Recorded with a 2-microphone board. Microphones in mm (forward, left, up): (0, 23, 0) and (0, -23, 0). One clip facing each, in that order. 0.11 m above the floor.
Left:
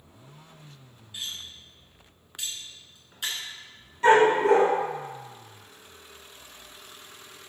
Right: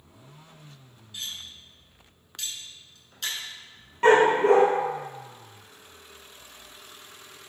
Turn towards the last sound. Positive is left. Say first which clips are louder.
# even
turn(degrees=-40)  # may be behind; listen again after turning